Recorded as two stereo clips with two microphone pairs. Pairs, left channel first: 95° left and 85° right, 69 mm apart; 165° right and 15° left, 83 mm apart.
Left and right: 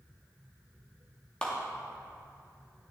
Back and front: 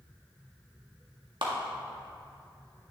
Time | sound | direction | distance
1.4 | a clap | 20° left | 1.8 m